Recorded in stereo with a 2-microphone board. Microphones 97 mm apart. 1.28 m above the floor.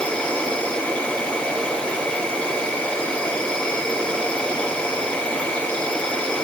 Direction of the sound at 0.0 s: 10° left (ahead or behind).